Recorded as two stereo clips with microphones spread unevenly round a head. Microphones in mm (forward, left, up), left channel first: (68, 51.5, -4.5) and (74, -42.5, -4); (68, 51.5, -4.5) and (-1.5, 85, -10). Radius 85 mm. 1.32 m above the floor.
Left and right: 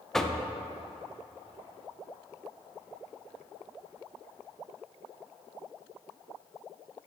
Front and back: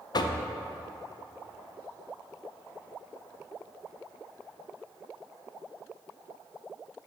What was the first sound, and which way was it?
Knocking, 10° left.